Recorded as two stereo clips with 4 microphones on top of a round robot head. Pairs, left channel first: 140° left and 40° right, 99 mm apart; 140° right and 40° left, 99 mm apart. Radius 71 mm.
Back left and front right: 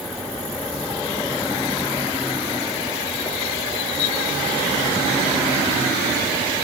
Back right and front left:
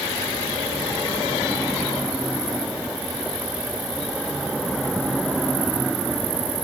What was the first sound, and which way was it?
Only background noise.